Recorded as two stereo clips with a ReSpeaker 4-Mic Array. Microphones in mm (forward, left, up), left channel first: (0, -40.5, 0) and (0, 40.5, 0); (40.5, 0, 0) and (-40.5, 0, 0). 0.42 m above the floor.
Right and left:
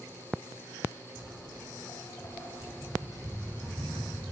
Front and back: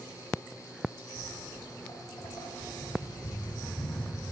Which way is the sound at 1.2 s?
60° right.